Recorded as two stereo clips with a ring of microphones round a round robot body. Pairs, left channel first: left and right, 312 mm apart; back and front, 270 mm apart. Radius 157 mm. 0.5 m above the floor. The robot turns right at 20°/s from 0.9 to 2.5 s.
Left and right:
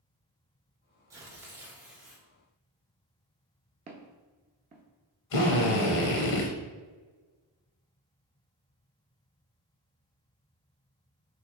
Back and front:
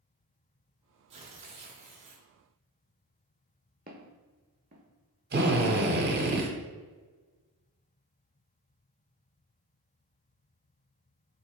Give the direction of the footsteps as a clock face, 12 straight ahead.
1 o'clock.